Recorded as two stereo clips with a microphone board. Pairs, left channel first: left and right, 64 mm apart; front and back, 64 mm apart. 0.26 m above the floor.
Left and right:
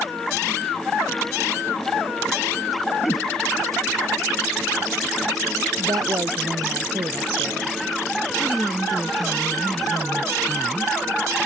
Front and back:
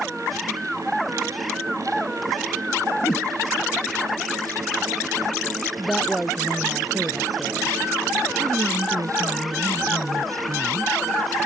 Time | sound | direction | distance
3.0 | a whoosh | 45° left | ?
5.8 | a woman speaking | 90° right | ?
8.4 | a woman speaking | straight behind | ?